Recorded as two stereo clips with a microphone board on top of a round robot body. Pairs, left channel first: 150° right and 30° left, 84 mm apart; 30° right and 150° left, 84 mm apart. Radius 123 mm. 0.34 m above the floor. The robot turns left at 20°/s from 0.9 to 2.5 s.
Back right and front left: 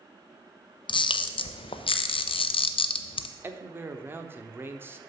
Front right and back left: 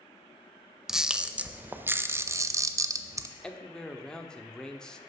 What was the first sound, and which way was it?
A camera shutter, 125° right.